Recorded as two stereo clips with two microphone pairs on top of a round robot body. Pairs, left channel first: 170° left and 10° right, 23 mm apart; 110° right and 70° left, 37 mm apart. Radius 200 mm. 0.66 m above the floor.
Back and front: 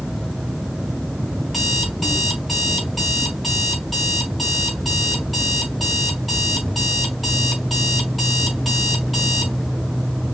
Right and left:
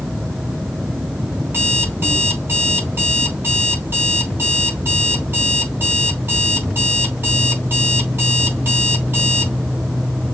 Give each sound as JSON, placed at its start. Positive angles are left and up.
{"t": 1.4, "sound": "an alarm clock", "azimuth_deg": 75, "distance_m": 4.5}